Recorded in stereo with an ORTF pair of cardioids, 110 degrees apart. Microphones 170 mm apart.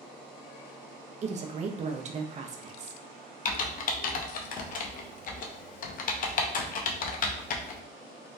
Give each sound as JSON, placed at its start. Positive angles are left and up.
{"t": 1.2, "sound": "a woman speaking", "azimuth_deg": -40, "distance_m": 0.6}
{"t": 3.5, "sound": "typing on a keyboard", "azimuth_deg": 50, "distance_m": 0.6}